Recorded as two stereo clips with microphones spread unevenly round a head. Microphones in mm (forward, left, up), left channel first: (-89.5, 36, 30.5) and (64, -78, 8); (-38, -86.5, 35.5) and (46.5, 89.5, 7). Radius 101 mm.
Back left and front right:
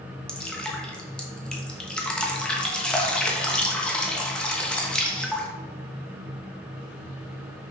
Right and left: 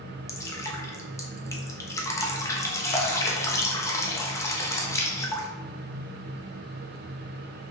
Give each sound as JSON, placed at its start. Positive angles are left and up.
{"t": 0.3, "sound": "dripping", "azimuth_deg": -150, "distance_m": 1.1}